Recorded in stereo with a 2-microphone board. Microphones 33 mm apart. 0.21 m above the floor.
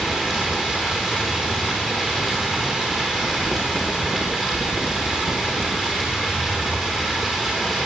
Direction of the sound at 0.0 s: 5° left (ahead or behind).